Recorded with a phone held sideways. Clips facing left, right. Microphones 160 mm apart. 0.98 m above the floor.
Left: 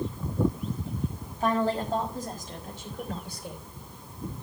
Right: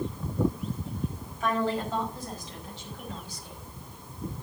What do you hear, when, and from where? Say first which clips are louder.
1.4 s a woman speaking: left 2 dB; 40° left (ahead or behind), 5 m; by 3.6 s 70° left (ahead or behind), 3 m